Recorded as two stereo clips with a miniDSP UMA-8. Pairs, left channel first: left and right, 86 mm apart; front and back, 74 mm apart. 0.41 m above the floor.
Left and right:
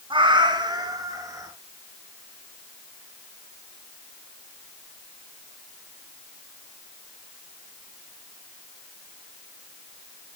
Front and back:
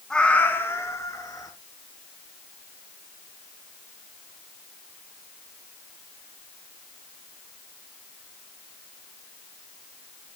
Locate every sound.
0.1 s a cat meowing: 80° right, 1.4 m; by 1.5 s 40° right, 2.5 m